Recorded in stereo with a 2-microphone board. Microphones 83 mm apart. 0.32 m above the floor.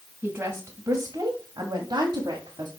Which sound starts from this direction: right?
A woman speaking, at 0.2 s.